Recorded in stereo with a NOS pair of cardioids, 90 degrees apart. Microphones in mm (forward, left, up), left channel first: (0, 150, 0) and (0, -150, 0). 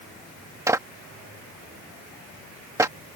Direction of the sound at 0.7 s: 10° right.